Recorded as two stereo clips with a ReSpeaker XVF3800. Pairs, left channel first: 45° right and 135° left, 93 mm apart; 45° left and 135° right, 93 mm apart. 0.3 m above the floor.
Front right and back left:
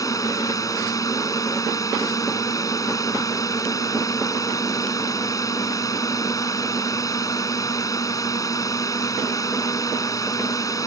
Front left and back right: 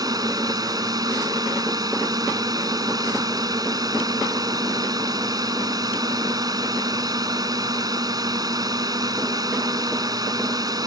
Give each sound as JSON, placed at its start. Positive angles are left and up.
{"t": 0.0, "sound": "a drone", "azimuth_deg": -95}